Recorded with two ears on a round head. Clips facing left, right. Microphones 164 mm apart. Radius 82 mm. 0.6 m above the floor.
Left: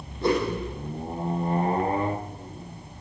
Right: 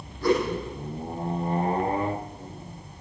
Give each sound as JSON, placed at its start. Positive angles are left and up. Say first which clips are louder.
{"t": 0.2, "sound": "a whoosh", "louder": "right 1 dB", "side_deg": 20, "distance_m": 8.0}